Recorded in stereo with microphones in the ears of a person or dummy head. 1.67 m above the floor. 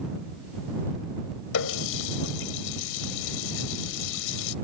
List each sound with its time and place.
1.5 s a running tap: 70° left (ahead or behind)